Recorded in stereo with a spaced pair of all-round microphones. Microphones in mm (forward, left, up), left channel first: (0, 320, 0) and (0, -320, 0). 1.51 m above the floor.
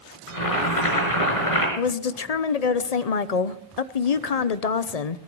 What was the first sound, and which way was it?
Boiling, 55° left (ahead or behind).